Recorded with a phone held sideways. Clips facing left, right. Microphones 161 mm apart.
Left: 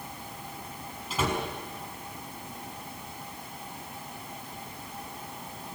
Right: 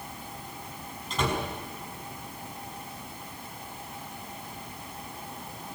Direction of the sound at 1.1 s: 5° left (ahead or behind).